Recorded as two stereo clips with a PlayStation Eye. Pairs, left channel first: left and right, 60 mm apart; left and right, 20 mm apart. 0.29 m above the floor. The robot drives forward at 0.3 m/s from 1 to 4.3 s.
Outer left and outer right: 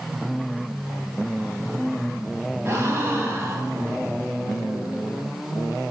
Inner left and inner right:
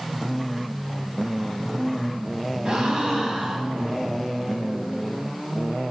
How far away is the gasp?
About 1.2 m.